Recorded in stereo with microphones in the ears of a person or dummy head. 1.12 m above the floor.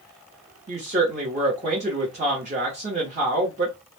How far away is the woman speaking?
About 0.7 m.